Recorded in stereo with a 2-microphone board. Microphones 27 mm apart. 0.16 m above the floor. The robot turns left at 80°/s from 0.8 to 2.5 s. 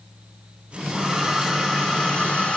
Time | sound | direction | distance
0.9 | a hair dryer | 145° right | 2.5 m